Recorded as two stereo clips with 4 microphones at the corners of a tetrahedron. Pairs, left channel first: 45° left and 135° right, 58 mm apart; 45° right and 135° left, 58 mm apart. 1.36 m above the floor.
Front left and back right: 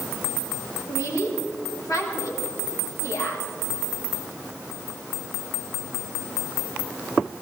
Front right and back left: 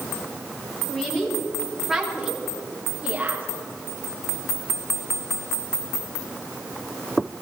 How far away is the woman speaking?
About 5.5 m.